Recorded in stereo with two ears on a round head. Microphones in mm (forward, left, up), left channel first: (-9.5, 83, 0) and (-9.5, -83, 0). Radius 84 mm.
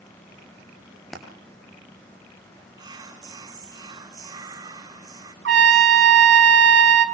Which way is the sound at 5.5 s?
70° right (ahead or behind).